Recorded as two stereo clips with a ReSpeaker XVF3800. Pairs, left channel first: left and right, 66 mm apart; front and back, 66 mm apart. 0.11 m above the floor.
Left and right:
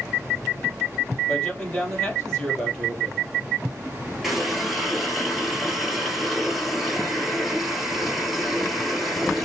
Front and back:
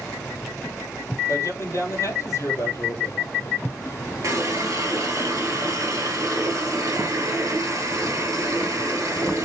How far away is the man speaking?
About 3 m.